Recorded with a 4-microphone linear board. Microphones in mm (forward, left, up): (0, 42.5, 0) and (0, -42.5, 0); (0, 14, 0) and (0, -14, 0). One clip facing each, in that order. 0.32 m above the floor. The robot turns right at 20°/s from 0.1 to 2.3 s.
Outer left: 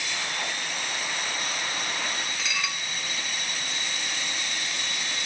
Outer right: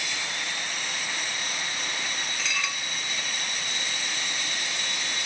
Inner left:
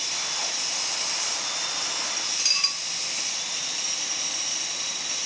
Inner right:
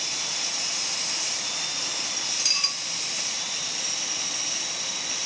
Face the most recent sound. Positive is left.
turn(degrees=0)  # may be behind; listen again after turning